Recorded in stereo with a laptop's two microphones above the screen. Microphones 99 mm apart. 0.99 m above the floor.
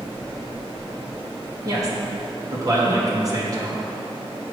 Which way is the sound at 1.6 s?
35° right (ahead or behind).